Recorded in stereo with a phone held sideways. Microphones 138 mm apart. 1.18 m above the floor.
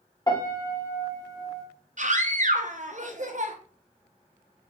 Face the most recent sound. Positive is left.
turn(degrees=-60)  # may be behind; listen again after turning